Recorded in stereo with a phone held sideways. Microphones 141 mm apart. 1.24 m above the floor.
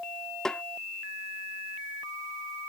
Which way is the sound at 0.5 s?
5° left (ahead or behind).